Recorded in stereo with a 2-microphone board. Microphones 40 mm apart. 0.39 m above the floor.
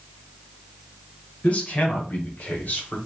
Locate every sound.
1.4 s a man speaking: 35° left (ahead or behind), 1.5 m; by 3.0 s 50° left (ahead or behind), 1.4 m